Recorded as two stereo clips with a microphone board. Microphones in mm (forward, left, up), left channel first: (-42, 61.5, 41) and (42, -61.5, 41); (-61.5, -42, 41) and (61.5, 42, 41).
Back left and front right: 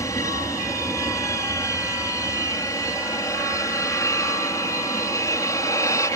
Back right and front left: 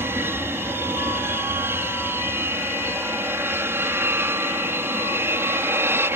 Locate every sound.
0.0 s an aircraft: 85° left